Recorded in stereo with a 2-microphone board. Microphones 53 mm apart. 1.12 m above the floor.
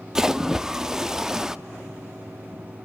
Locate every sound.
0.1 s a splash: 10° right (ahead or behind), 0.6 m